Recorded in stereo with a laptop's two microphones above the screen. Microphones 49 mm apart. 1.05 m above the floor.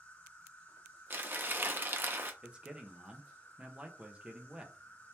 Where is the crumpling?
45° right (ahead or behind), 0.6 m.